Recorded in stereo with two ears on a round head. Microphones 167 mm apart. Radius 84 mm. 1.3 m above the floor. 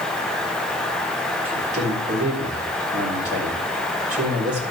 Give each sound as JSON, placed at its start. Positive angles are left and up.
{"t": 1.4, "sound": "a man speaking", "side_deg": -45, "distance_m": 5.0}